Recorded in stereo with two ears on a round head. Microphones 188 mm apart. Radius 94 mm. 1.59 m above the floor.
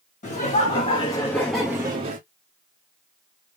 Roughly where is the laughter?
Left.